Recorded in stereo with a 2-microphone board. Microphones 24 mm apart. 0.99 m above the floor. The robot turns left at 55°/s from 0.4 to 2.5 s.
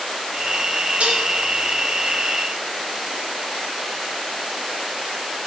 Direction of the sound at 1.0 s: 65° right (ahead or behind).